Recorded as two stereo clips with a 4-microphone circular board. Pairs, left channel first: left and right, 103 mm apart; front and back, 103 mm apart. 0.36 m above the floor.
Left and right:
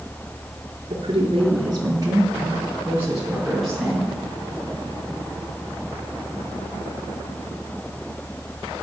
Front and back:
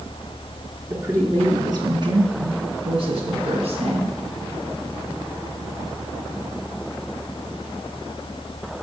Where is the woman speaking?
115° right, 4 m; by 4.1 s 175° left, 4.5 m.